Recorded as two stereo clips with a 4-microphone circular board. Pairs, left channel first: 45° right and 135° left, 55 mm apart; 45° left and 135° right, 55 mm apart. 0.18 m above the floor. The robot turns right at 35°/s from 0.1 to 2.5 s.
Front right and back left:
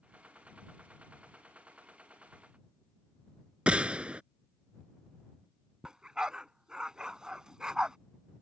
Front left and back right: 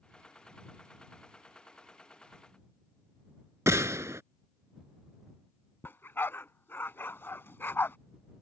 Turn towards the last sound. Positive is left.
turn(degrees=65)